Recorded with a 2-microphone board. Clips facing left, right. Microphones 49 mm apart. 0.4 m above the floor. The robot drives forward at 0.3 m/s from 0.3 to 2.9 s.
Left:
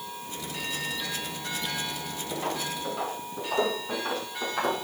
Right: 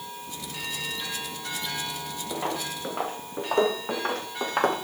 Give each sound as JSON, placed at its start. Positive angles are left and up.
{"t": 2.3, "sound": "footsteps", "side_deg": -20, "distance_m": 3.0}